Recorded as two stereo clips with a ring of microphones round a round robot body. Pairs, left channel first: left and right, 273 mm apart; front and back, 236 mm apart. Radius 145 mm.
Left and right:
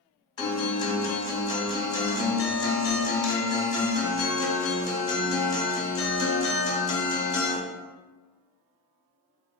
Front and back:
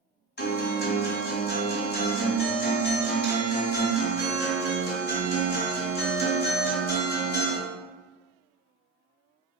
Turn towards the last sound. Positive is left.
turn(degrees=20)